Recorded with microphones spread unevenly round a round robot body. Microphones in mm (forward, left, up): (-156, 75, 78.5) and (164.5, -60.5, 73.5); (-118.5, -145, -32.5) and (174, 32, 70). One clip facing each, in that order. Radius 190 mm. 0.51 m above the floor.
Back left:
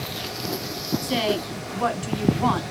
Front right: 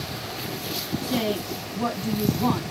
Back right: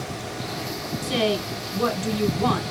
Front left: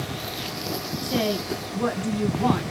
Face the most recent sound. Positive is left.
turn(degrees=175)